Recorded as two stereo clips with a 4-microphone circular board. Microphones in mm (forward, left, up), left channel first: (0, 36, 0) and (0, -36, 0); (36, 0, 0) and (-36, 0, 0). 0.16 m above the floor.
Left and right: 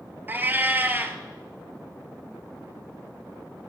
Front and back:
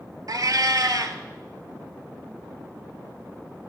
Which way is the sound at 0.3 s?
150° right.